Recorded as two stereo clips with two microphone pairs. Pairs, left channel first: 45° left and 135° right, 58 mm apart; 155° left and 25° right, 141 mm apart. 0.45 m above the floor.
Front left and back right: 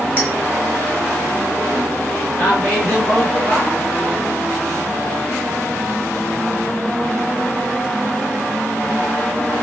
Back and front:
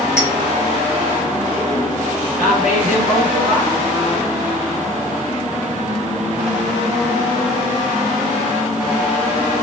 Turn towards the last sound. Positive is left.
turn(degrees=-15)